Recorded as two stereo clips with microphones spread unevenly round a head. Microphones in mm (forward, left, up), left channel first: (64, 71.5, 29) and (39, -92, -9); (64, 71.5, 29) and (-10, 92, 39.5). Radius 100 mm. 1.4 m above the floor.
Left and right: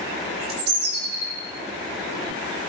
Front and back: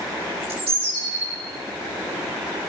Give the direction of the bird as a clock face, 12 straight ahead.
5 o'clock.